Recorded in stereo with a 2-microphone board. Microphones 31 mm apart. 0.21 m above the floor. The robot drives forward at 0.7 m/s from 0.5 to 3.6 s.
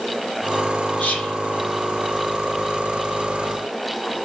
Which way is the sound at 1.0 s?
55° left (ahead or behind).